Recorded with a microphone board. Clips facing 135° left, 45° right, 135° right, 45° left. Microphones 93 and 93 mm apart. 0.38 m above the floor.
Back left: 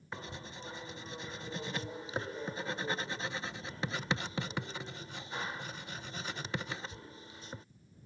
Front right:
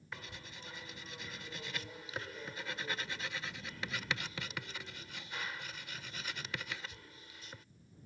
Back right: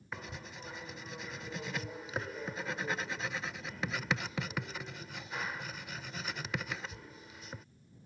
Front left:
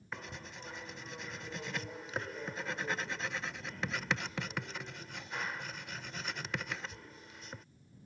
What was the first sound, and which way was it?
Writing, 140° left.